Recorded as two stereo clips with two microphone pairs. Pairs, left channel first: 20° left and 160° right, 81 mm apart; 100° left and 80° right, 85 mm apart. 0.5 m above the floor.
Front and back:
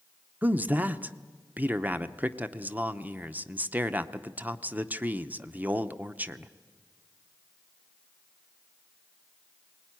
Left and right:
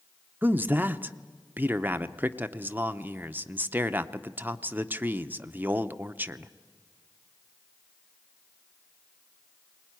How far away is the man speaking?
About 0.7 m.